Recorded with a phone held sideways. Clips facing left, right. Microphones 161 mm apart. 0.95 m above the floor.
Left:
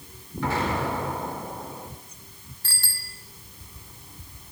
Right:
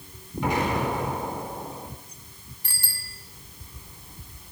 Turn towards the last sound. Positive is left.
turn(degrees=-15)  # may be behind; listen again after turning